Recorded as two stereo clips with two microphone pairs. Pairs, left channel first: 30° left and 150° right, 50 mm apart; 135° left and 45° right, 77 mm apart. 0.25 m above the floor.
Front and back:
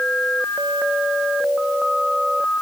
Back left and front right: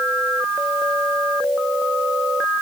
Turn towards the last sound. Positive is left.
No sound to turn to.